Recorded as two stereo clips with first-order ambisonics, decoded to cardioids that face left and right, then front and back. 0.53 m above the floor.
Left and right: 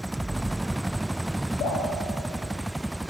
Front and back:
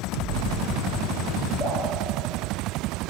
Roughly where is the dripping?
Left.